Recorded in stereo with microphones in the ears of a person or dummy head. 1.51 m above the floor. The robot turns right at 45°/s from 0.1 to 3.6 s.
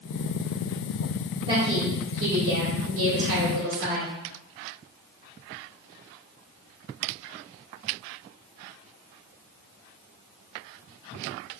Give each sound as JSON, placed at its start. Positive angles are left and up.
{"t": 1.5, "sound": "a woman speaking", "azimuth_deg": -150, "distance_m": 2.0}